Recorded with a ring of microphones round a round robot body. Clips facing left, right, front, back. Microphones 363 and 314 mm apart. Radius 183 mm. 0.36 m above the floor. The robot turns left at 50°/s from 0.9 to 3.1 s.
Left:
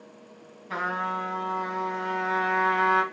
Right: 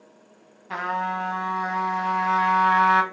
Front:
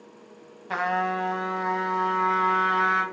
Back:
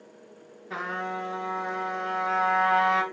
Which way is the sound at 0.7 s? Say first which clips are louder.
Right 2 dB, front 6 dB; 15° right.